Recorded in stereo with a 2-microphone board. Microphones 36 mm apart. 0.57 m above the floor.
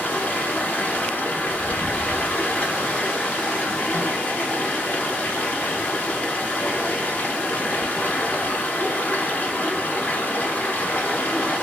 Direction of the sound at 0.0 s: 45° left (ahead or behind).